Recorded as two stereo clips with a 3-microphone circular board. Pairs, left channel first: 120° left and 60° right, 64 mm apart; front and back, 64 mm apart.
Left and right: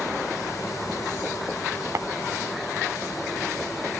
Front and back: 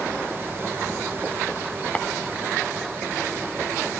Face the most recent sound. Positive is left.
turn(degrees=-65)